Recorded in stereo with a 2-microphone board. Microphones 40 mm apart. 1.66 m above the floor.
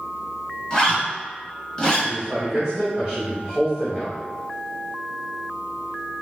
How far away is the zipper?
About 1.6 m.